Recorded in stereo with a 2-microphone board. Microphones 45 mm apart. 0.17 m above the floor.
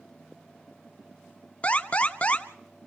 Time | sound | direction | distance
1.6 | an alarm | 30° left (ahead or behind) | 1.4 m